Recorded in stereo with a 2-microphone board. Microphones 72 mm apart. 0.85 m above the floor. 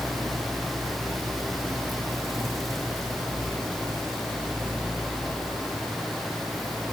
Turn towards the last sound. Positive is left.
No sound to turn to.